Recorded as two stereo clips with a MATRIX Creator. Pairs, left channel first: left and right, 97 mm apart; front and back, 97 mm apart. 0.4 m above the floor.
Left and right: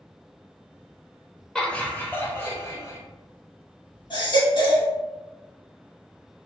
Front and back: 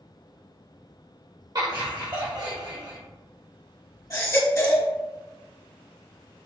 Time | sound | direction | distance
1.6 | laughter | 170° left | 1.1 m
4.1 | a baby crying | 55° left | 1.2 m